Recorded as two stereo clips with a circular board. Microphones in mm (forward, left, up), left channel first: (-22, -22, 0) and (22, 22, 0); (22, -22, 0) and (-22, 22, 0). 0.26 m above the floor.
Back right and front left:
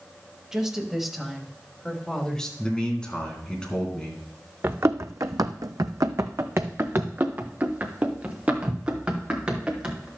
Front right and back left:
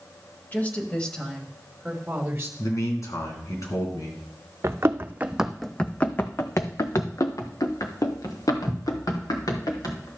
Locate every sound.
0.5 s a woman speaking: 25° right, 1.4 m; by 2.5 s 160° left, 1.4 m
2.6 s a man speaking: 60° right, 3 m
4.6 s running footsteps: 90° left, 0.8 m; by 10.1 s 30° right, 3 m